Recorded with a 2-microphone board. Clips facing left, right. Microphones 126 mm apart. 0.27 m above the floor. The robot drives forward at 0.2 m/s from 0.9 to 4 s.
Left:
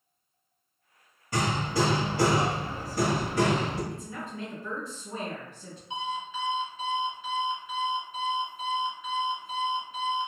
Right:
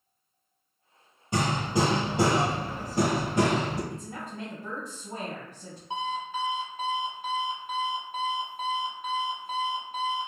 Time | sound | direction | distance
1.3 | hammering | 20° right (ahead or behind) | 1.1 m
3.9 | a woman speaking | 40° right (ahead or behind) | 1.7 m
5.9 | an alarm clock | 50° right (ahead or behind) | 0.7 m